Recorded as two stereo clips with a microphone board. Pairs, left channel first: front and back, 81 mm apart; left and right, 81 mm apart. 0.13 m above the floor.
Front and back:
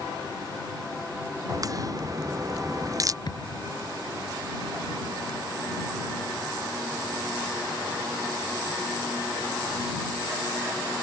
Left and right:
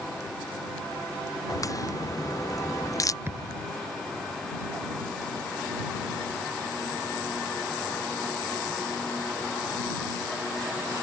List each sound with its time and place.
1.5 s a crack: 135° left
3.2 s a thud: 30° right